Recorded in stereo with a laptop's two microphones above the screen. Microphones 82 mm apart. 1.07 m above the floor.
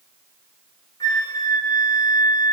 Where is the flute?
50° left (ahead or behind), 1.8 m.